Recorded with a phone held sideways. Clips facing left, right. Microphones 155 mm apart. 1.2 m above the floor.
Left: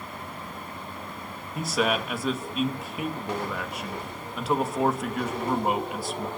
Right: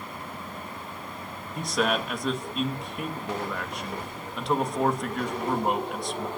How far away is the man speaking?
About 1.7 m.